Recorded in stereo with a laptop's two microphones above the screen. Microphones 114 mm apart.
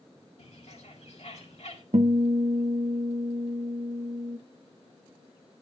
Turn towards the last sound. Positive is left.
turn(degrees=-80)